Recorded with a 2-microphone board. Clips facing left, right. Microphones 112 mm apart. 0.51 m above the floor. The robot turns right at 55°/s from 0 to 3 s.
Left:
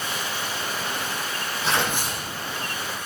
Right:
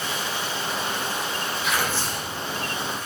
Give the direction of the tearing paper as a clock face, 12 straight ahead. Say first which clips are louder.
Left 3 dB; 7 o'clock.